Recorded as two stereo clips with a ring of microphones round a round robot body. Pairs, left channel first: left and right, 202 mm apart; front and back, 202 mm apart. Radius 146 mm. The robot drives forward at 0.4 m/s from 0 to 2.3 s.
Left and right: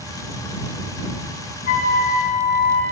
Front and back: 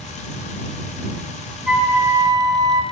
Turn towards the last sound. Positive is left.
turn(degrees=110)